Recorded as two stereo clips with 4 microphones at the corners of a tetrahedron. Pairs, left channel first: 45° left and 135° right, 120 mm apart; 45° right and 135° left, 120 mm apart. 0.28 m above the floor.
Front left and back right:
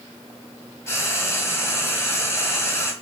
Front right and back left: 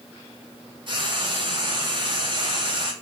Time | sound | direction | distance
0.9 | frying | 105° left | 2.5 m